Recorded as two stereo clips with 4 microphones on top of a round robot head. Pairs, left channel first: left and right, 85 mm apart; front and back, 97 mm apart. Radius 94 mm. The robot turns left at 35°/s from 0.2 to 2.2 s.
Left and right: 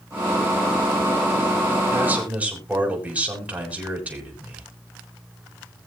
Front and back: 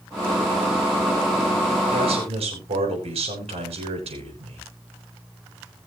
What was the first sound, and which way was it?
A man speaking, 155° right.